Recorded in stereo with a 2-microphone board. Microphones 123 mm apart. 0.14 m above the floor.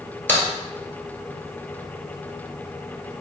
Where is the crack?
15° left (ahead or behind), 1.4 m.